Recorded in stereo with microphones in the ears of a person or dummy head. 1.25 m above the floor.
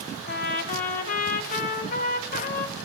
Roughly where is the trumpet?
Left.